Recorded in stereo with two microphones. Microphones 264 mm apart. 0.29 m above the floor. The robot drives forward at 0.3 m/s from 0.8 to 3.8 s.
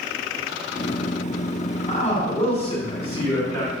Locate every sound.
1.9 s a man speaking: 25° left (ahead or behind), 2 m; by 3.7 s 20° left (ahead or behind), 2.5 m